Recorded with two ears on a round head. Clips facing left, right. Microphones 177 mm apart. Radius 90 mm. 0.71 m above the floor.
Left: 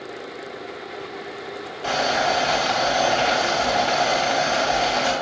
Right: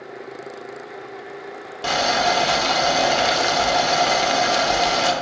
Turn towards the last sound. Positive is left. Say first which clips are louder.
# right 1 dB
turn(degrees=-55)  # may be behind; listen again after turning